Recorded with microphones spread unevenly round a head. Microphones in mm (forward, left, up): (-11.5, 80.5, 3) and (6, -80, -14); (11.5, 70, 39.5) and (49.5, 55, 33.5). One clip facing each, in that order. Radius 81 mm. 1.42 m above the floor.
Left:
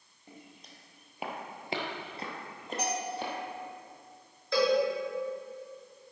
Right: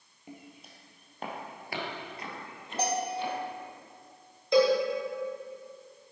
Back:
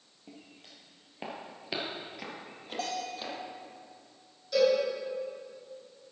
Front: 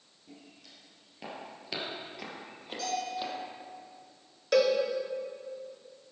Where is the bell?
140° right, 1.1 m.